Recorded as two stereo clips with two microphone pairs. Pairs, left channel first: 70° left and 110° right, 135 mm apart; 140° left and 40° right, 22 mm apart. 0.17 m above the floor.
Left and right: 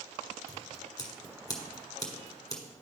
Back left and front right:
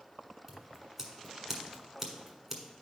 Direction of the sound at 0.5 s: 25° left.